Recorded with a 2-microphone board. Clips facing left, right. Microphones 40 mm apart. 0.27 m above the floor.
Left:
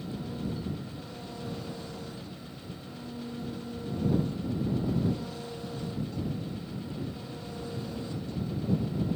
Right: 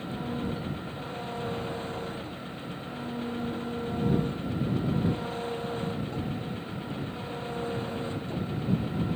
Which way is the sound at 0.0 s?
40° right (ahead or behind).